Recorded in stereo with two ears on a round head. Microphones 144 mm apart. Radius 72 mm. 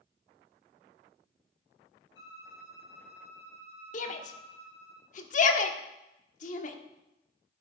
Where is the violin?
80° left, 4.5 m.